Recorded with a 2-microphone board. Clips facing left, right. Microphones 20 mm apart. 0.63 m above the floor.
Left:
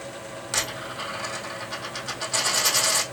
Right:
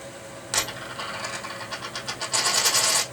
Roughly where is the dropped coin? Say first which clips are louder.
Right 1 dB; centre.